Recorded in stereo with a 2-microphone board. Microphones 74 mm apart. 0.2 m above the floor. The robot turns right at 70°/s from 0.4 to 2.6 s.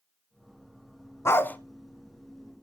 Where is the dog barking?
40° left (ahead or behind), 0.7 m; by 1.6 s 20° left (ahead or behind), 0.7 m.